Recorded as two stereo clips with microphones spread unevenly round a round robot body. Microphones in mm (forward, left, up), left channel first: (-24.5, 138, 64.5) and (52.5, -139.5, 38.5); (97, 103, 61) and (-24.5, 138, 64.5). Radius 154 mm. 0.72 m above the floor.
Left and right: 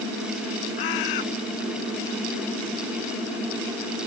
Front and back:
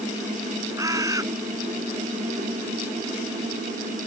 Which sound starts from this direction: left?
A bird, at 0.8 s.